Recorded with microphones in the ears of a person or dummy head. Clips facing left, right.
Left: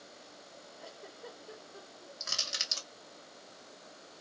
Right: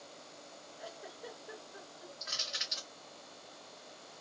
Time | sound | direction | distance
0.8 | a giggle | 15° right (ahead or behind) | 1.2 m
2.2 | crushing | 50° left (ahead or behind) | 0.8 m